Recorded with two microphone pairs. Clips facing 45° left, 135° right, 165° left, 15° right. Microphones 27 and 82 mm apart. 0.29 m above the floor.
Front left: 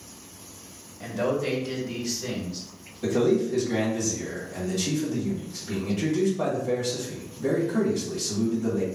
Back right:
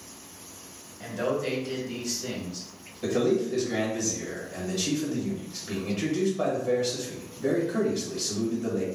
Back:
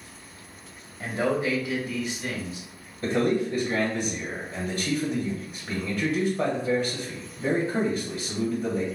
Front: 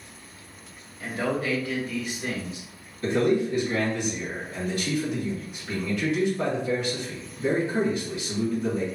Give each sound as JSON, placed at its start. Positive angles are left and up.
{"t": 1.0, "sound": "a man speaking", "azimuth_deg": 130, "distance_m": 1.1}
{"t": 3.0, "sound": "a man speaking", "azimuth_deg": 175, "distance_m": 1.6}